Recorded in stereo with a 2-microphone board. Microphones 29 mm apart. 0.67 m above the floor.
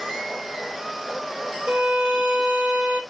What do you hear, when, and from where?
1.7 s a violin: 25° right (ahead or behind), 1.0 m